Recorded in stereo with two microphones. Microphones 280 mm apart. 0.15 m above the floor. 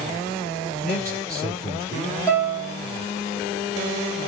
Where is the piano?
15° left (ahead or behind), 3.5 m.